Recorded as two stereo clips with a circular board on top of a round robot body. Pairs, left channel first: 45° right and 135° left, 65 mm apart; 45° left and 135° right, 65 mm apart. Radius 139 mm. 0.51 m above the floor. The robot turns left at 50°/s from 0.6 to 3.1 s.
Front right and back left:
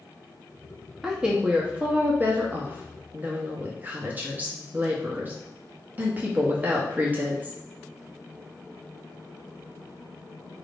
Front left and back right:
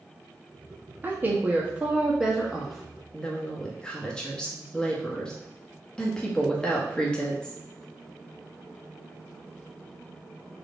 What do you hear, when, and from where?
1.0 s a woman speaking: 150° right, 1.3 m; by 7.6 s 110° left, 1.3 m